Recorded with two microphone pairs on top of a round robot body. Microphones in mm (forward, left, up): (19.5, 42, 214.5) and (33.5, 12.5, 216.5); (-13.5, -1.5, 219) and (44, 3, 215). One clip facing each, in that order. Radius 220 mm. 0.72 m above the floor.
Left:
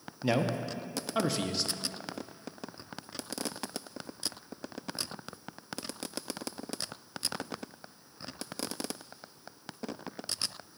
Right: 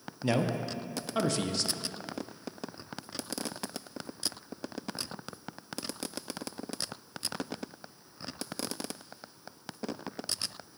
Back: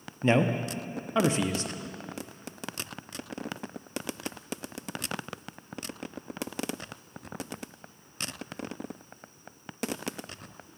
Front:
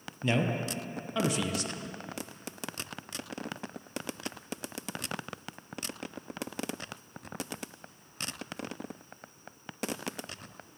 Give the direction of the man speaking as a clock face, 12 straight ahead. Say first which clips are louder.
Even, back 5 dB; 6 o'clock.